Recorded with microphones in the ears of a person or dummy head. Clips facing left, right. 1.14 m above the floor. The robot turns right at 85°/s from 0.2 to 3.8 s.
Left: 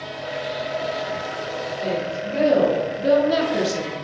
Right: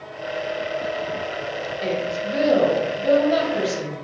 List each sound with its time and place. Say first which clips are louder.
1.8 s a woman speaking: right 1 dB; 70° right, 0.5 m; by 4.0 s 100° left, 0.5 m